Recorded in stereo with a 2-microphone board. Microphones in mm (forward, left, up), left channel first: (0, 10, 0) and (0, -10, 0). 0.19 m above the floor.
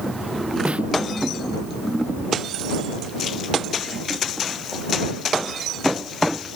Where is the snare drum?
85° right.